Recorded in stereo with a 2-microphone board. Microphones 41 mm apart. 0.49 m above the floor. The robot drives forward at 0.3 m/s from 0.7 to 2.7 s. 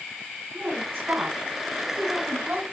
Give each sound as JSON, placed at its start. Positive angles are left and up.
{"t": 0.5, "sound": "a woman speaking", "side_deg": -65, "distance_m": 3.5}